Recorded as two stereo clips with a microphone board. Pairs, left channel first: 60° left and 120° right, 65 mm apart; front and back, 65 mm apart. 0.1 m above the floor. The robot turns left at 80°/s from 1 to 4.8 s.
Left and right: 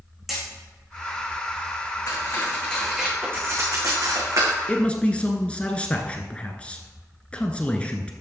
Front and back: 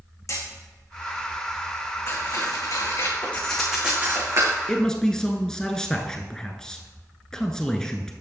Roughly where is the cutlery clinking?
Ahead left.